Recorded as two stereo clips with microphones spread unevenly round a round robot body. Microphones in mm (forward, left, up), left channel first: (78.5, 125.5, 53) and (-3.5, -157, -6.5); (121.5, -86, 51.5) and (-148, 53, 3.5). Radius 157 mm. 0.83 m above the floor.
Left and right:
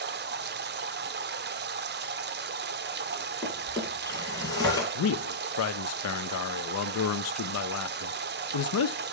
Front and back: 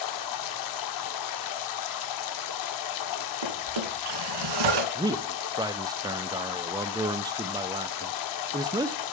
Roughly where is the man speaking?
Left.